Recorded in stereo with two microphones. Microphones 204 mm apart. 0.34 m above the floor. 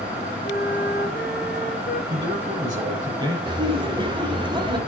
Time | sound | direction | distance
0.4 | a flute | 50° left (ahead or behind) | 1.9 m
2.1 | a man speaking | 20° right (ahead or behind) | 9 m
3.5 | laughter | 25° right (ahead or behind) | 1.6 m